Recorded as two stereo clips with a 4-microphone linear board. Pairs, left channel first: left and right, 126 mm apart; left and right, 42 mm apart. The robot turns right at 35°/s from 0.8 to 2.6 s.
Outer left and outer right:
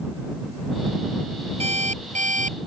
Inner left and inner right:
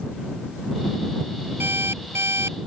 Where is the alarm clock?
120° right; by 2.6 s 85° right.